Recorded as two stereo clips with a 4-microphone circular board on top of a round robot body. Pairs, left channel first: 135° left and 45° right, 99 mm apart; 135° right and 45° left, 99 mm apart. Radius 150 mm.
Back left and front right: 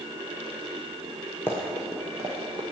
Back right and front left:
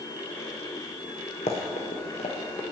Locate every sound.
1.5 s running footsteps: 155° right, 0.6 m; by 2.6 s 95° right, 0.8 m